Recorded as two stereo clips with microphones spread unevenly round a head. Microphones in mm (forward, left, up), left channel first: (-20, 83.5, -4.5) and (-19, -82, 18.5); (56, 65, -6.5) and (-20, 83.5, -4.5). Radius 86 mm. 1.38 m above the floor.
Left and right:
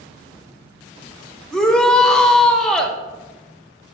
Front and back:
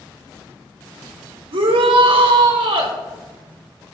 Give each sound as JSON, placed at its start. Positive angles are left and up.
{"t": 1.5, "sound": "a shout", "azimuth_deg": 175, "distance_m": 1.0}